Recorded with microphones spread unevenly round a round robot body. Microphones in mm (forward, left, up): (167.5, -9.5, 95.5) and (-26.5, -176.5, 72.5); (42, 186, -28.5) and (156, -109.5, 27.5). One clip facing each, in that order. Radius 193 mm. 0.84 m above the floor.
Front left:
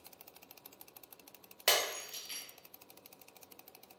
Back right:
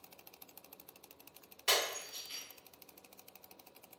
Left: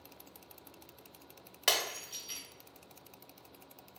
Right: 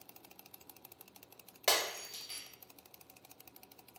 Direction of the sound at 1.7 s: 40° left.